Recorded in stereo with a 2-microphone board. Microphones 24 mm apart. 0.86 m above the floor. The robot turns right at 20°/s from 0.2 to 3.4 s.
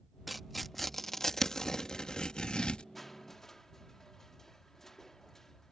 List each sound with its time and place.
0.3 s tearing paper: centre (ahead or behind); by 2.8 s 40° left (ahead or behind)
3.0 s crushing: 5° left (ahead or behind); by 5.7 s 15° left (ahead or behind)